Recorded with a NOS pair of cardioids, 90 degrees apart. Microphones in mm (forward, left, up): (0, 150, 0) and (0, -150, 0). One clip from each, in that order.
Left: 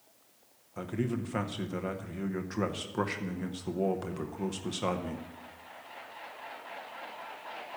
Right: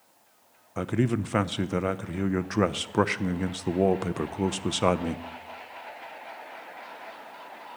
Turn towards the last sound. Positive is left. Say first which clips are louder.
# right 7 dB
turn(degrees=-40)